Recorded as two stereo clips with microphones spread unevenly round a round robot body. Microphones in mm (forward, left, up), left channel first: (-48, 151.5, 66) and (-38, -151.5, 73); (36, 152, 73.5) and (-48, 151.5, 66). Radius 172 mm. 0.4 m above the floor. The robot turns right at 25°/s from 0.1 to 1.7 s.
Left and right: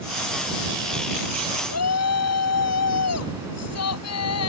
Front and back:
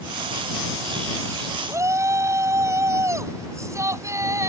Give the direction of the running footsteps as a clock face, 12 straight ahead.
No running footsteps in this recording.